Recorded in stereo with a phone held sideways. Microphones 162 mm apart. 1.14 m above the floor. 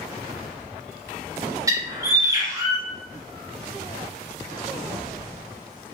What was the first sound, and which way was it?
A bird, 20° right (ahead or behind).